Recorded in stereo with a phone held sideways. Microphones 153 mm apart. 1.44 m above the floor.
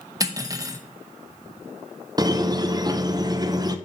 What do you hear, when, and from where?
0.2 s cutlery clinking: 25° right (ahead or behind), 0.7 m
2.2 s a squeak: 30° right (ahead or behind), 0.5 m